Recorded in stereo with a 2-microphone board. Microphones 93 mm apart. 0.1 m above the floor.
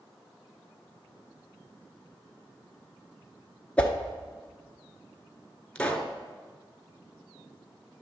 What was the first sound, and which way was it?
A whoosh, 15° left (ahead or behind).